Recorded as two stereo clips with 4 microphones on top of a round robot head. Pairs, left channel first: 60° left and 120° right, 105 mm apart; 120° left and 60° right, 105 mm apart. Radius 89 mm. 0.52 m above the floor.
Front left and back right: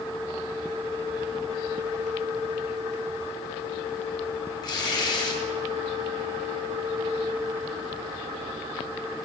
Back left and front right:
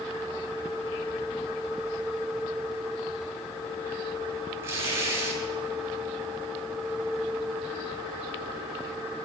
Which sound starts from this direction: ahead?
Tearing paper, at 4.6 s.